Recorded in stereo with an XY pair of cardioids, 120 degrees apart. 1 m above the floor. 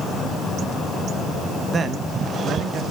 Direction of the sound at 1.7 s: 30° right.